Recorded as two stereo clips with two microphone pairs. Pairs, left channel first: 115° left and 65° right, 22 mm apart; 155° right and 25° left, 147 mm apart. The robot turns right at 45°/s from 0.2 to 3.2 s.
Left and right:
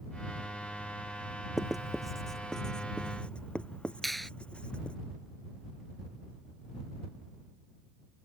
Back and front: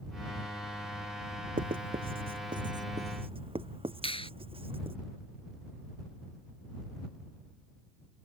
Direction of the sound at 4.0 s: 160° right.